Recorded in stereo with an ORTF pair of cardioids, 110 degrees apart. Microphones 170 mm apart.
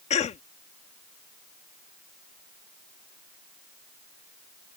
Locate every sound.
0.1 s a cough: 40° left